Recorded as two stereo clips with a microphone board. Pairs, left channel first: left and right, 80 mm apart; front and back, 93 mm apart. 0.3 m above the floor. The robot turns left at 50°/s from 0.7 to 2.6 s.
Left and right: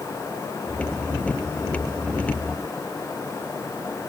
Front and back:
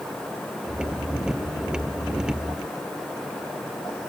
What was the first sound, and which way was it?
Only background noise.